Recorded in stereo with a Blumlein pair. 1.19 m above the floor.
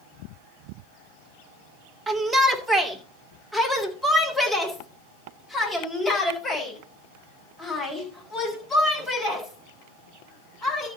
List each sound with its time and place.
2.1 s a shout: 15° right, 2 m; by 10.9 s 20° left, 9.5 m